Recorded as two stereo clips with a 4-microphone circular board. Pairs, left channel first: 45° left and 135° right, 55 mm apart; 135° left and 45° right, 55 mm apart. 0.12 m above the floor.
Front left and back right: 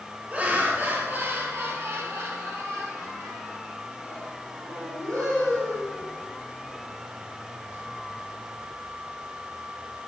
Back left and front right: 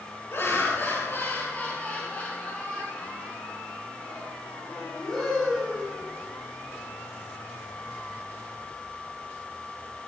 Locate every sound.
0.3 s laughter: 165° left, 2.5 m; by 6.2 s 140° right, 5 m